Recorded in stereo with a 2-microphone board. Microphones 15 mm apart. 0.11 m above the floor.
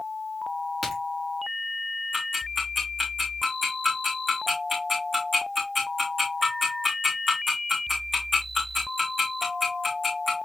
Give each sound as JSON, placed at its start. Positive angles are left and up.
{"t": 0.8, "sound": "a crack", "side_deg": -10, "distance_m": 7.0}
{"t": 2.1, "sound": "ticking", "side_deg": -10, "distance_m": 4.5}